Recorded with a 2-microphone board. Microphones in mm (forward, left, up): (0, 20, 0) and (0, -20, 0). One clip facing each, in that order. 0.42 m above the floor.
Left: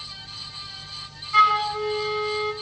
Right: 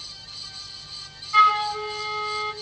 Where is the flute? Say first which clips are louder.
Even; centre (ahead or behind), 1.2 m.